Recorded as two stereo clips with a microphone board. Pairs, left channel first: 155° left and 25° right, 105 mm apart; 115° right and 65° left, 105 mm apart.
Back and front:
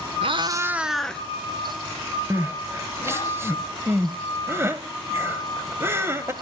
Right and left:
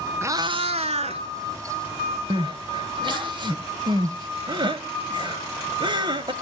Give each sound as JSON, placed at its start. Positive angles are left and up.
{"t": 0.2, "sound": "a cat meowing", "azimuth_deg": 0, "distance_m": 0.7}
{"t": 2.3, "sound": "crying", "azimuth_deg": 40, "distance_m": 1.0}